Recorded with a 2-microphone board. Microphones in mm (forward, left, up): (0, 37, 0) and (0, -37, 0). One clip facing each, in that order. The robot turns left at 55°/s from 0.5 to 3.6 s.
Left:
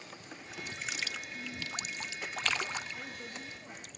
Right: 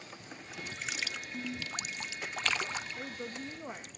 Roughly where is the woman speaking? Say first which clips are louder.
Right 3 dB; ahead right.